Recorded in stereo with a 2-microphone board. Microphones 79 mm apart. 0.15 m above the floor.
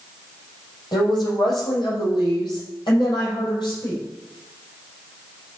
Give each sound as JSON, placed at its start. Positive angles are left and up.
{"t": 0.9, "sound": "a woman speaking", "side_deg": 65, "distance_m": 5.0}